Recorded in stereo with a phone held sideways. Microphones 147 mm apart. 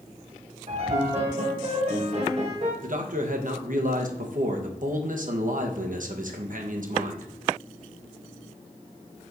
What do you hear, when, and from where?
0.7 s a piano: 50° right (ahead or behind), 1.9 m
2.8 s a man speaking: 65° right (ahead or behind), 1.2 m